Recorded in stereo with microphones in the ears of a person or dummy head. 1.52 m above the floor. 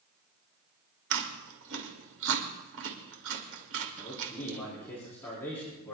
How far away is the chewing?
About 2.5 m.